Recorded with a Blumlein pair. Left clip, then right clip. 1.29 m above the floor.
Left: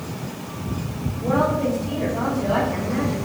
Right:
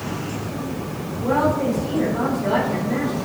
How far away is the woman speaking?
About 5 m.